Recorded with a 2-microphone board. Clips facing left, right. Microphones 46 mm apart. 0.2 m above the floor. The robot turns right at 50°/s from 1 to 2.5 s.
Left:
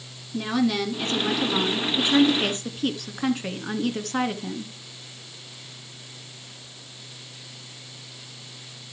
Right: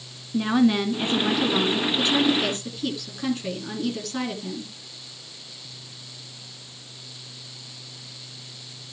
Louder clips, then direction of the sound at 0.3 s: Right 4 dB; 20° right.